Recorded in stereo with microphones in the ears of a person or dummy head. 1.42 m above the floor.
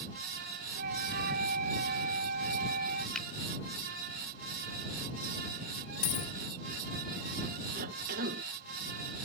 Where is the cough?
55° right (ahead or behind).